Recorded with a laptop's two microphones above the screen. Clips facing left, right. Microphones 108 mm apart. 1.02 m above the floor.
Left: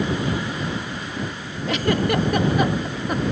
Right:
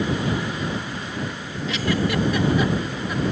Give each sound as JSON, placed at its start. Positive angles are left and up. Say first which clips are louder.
{"t": 1.7, "sound": "a giggle", "louder": "left 3 dB", "side_deg": 50}